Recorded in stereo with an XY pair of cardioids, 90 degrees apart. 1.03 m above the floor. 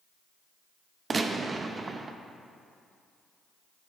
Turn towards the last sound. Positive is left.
turn(degrees=-40)